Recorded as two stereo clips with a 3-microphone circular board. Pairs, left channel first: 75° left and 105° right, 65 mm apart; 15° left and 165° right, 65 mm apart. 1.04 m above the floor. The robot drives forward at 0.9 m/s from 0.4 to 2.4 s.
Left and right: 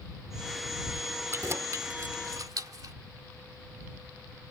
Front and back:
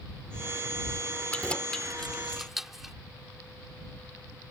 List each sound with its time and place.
1.3 s keys jangling: 55° right; by 3.0 s 80° right